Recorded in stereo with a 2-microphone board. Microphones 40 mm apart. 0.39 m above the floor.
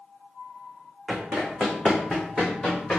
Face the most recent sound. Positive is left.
turn(degrees=10)  # may be behind; listen again after turning